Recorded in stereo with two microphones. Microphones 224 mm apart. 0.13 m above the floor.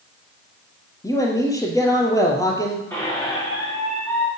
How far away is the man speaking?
About 3.5 m.